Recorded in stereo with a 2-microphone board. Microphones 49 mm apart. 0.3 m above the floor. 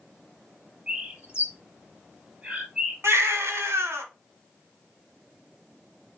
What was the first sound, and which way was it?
A bird, 20° right (ahead or behind).